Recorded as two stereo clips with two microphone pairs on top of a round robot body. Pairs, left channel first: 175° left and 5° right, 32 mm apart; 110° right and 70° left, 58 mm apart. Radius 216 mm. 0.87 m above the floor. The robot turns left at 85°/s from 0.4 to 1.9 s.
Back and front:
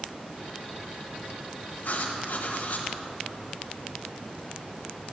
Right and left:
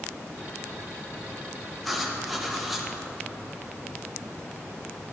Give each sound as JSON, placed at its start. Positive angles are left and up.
{"t": 1.8, "sound": "writing", "azimuth_deg": 170, "distance_m": 1.1}